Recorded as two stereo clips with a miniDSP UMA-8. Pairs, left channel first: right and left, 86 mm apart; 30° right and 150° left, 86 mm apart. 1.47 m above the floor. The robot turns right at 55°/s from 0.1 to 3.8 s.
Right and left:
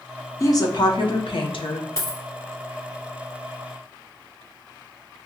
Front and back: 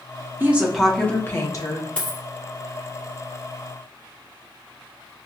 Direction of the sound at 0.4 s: 145° right.